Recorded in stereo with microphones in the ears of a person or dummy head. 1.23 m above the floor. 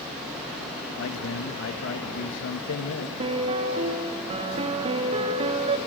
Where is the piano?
35° right (ahead or behind), 1.8 m.